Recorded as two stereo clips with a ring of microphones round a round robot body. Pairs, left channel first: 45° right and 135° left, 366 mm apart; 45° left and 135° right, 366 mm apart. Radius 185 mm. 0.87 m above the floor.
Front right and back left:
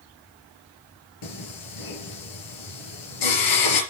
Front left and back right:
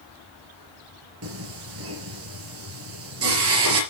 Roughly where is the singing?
Right.